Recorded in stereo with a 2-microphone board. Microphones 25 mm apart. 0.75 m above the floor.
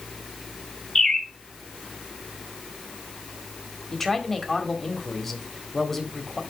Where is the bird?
20° left (ahead or behind), 2.5 m.